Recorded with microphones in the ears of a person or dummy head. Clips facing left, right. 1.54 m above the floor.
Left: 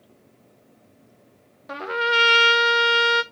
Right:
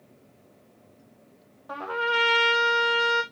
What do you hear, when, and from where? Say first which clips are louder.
1.7 s a trumpet: left 3 dB; 30° left (ahead or behind), 0.6 m